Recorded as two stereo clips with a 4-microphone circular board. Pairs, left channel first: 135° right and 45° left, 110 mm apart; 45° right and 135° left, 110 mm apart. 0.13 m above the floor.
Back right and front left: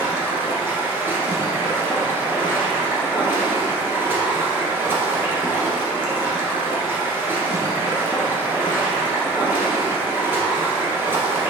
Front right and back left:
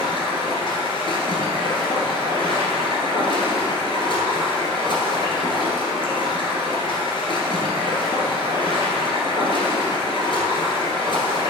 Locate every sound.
0.0 s running water: 20° right, 1.5 m